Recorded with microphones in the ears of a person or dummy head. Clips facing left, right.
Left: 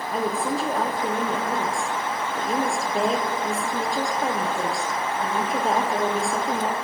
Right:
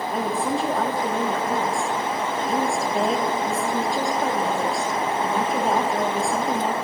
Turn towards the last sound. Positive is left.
turn(degrees=5)  # may be behind; listen again after turning